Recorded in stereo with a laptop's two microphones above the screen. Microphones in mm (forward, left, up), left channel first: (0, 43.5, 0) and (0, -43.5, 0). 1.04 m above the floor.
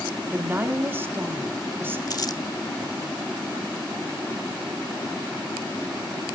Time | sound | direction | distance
0.3 | a woman speaking | 25° right (ahead or behind) | 2.0 m
2.1 | crumpling | 45° left (ahead or behind) | 1.3 m